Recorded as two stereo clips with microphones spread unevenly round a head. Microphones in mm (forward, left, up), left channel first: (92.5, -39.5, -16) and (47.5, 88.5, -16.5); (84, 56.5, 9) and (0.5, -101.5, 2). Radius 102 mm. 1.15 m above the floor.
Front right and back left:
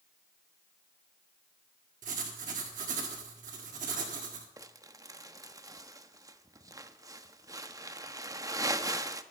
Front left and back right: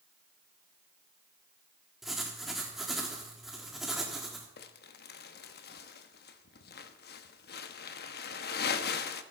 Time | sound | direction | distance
2.0 | writing | 155° left | 1.5 m
4.6 | crumpling | 45° left | 0.9 m